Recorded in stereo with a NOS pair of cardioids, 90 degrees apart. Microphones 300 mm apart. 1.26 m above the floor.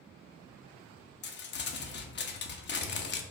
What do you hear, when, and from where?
1.2 s crumpling: 35° left, 0.7 m